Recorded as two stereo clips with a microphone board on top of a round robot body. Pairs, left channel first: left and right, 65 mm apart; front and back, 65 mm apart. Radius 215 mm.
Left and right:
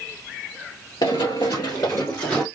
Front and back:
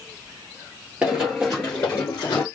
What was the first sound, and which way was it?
Running footsteps, 105° left.